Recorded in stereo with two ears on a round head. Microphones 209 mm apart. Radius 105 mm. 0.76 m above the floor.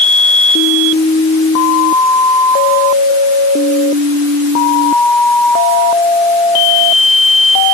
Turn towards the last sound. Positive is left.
No sound to turn to.